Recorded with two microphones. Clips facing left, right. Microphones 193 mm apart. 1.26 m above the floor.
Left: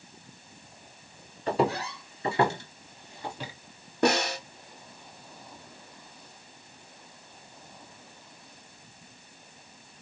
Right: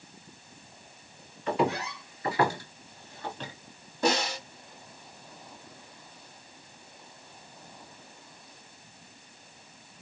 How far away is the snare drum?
About 1.3 m.